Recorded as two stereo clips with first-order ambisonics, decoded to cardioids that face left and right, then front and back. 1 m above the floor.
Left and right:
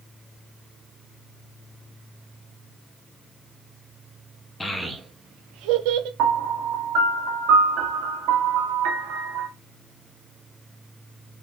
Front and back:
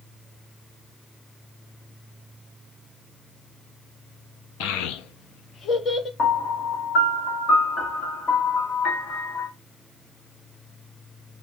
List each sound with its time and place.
4.6 s a child speaking: 10° left, 0.5 m; by 6.1 s 80° right, 0.9 m
6.2 s a piano: 65° right, 1.2 m